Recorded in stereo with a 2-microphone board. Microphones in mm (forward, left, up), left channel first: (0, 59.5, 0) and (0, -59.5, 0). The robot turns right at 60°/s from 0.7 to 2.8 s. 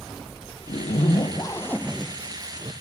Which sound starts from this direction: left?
A zipper, at 0.7 s.